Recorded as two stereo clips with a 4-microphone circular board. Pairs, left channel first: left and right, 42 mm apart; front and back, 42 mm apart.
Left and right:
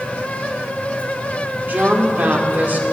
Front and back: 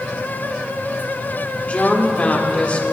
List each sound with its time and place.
1.7 s a woman speaking: 55° right, 2 m